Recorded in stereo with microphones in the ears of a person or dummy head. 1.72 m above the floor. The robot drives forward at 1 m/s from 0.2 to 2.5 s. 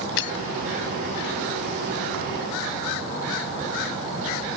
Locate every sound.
0.2 s breaking glass: 65° left (ahead or behind); by 0.3 s 70° left (ahead or behind)